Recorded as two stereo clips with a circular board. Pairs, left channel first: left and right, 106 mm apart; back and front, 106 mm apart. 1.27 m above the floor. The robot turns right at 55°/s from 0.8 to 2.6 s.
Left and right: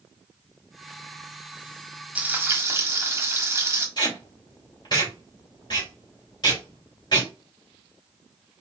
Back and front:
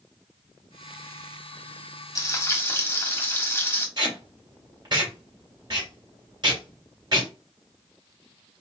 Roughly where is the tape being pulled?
Ahead left.